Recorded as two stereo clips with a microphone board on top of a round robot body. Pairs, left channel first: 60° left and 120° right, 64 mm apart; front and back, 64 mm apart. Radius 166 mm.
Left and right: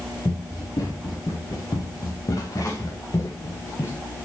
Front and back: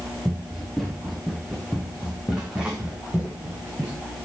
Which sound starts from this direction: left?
Running footsteps, at 0.2 s.